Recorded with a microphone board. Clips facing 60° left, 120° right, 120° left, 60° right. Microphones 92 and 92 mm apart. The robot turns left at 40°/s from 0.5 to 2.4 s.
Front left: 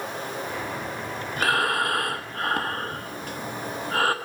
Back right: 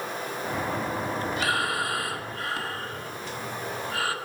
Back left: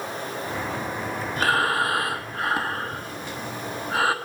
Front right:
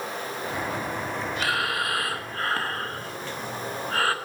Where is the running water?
65° left, 4.5 m; by 4.2 s 10° right, 4.5 m.